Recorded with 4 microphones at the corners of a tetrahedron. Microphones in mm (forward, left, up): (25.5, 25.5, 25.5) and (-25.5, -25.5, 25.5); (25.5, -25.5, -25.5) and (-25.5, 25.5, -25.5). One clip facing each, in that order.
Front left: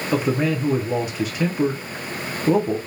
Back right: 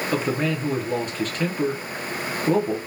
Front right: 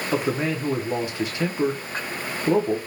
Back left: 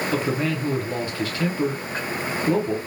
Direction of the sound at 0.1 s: 20° right.